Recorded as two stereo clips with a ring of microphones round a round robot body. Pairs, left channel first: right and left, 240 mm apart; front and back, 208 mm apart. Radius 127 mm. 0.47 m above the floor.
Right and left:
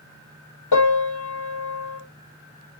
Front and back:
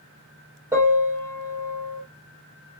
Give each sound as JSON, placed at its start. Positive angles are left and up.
{"t": 0.7, "sound": "a piano", "azimuth_deg": -100, "distance_m": 3.0}